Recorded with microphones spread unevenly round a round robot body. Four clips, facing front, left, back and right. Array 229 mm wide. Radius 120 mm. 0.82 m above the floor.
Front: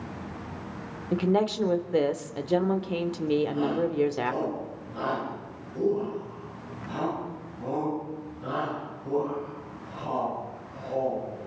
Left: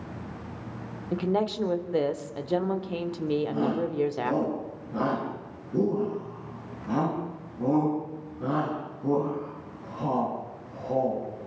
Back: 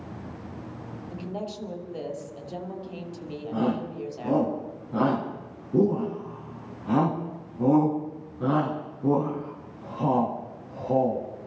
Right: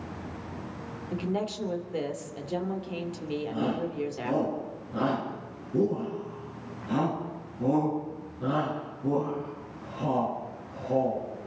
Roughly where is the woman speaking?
Ahead left.